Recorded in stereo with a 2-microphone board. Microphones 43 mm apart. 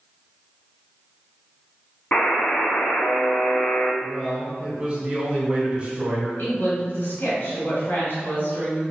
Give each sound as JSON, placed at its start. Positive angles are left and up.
{"t": 2.1, "sound": "a buzzer", "side_deg": 30, "distance_m": 0.6}
{"t": 4.0, "sound": "a man speaking", "side_deg": -20, "distance_m": 1.3}
{"t": 6.4, "sound": "a woman speaking", "side_deg": 55, "distance_m": 1.7}